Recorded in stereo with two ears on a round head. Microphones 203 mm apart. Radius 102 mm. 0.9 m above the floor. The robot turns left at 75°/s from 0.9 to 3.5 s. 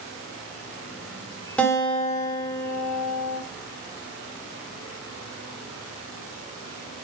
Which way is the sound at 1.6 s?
175° left.